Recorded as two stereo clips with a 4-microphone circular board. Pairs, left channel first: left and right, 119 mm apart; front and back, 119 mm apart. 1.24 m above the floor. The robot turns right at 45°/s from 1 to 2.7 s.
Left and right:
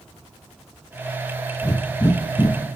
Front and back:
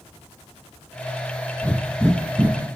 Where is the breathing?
75° left, 0.5 m; by 2.6 s 120° left, 0.5 m.